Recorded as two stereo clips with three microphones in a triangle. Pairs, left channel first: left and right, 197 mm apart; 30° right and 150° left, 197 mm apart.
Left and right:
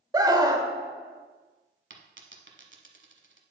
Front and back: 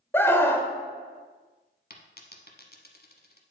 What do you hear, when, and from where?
0.1 s a scream: 85° right, 0.9 m
1.9 s a dropped coin: 70° right, 1.0 m